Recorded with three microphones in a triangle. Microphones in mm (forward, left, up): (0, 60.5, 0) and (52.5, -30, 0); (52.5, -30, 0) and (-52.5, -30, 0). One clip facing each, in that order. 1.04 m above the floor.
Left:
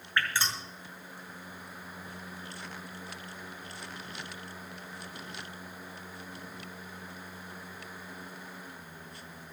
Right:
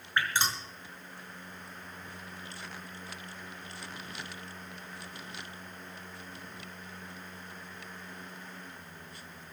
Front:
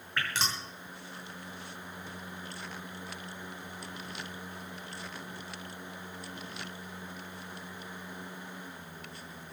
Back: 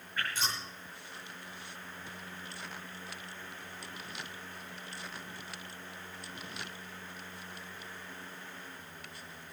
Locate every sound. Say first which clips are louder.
0.2 s dripping: right 1 dB, front 2 dB; 10° left, 6 m